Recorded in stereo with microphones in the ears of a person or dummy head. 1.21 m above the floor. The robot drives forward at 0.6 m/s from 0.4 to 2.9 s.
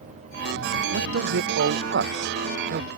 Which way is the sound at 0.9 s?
65° right (ahead or behind).